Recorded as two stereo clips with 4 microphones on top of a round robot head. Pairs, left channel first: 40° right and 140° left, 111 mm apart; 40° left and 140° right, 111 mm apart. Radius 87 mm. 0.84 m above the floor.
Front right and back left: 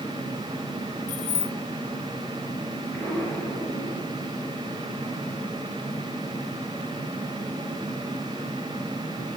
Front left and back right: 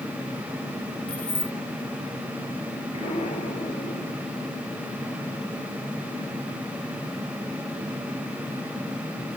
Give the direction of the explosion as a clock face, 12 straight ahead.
11 o'clock.